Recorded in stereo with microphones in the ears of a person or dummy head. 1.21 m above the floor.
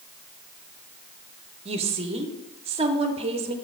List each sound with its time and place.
1.6 s a woman speaking: 30° right (ahead or behind), 0.6 m